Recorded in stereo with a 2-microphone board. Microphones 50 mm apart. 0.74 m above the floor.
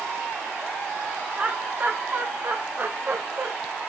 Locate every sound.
1.4 s laughter: 30° right (ahead or behind), 1.2 m; by 3.5 s 50° right (ahead or behind), 3 m